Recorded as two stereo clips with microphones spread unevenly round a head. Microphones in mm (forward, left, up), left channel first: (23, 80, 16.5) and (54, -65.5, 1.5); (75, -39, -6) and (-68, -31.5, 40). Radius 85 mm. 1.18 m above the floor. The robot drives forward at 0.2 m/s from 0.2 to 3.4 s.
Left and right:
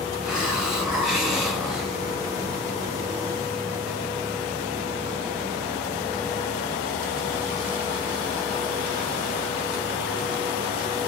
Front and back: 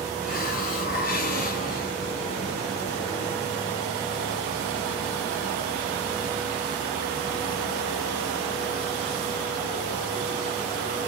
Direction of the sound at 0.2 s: 5° left.